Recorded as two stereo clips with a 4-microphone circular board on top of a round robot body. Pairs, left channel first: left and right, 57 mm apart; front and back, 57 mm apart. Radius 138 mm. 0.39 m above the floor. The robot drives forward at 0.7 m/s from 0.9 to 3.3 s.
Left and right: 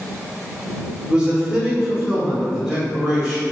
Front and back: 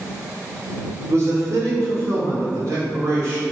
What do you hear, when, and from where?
1.1 s a man speaking: 160° right, 1.3 m; by 3.4 s 175° right, 2.5 m